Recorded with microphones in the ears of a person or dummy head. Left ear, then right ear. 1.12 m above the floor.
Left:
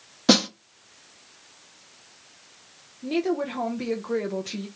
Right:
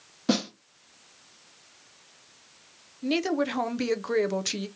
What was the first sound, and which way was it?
A snare drum, 30° left (ahead or behind).